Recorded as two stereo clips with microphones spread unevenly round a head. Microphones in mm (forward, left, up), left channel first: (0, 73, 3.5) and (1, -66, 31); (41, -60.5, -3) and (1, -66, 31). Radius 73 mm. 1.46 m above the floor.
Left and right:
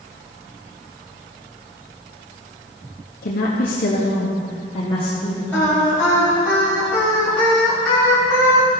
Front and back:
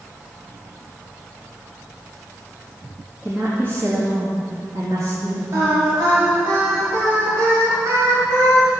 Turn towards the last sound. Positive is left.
turn(degrees=170)